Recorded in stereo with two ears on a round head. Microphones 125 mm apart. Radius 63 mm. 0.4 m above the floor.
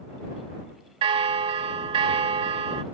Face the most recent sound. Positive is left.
turn(degrees=-40)  # may be behind; listen again after turning